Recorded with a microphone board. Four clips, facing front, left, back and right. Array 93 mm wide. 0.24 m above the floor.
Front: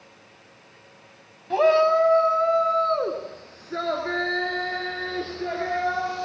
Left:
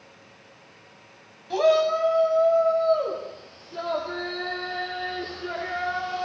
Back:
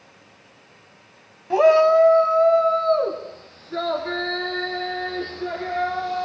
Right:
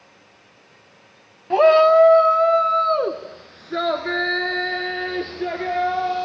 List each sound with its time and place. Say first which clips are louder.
1.5 s a shout: right 8 dB, back 4 dB; 110° right, 1.3 m; by 6.2 s 70° right, 5.5 m